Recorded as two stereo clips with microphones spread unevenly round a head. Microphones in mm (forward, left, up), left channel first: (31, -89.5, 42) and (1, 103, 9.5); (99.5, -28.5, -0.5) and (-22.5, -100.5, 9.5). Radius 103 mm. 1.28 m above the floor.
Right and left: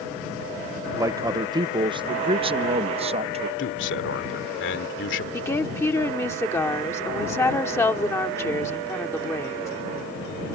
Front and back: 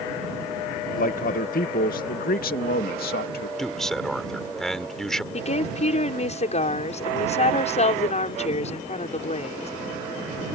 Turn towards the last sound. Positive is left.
turn(degrees=-5)